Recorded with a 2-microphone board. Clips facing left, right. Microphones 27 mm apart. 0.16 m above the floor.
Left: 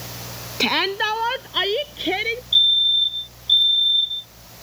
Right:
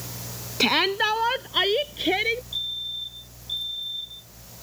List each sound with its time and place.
0.6 s a shout: 5° left (ahead or behind)
2.5 s a fire alarm: 55° left (ahead or behind)